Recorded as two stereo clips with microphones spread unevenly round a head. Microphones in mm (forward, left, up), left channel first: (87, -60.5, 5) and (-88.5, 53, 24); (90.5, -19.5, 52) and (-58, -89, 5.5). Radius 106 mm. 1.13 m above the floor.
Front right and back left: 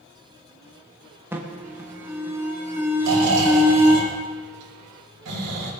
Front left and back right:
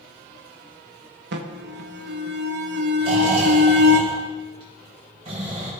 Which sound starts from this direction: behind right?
An alarm, at 1.3 s.